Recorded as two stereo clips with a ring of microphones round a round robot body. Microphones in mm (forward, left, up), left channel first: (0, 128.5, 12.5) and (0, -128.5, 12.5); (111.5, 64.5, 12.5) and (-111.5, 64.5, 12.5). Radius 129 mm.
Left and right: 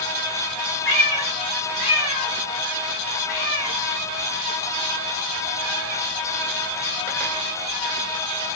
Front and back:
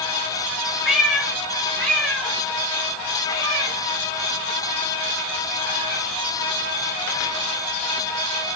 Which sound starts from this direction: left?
A cat meowing, at 0.8 s.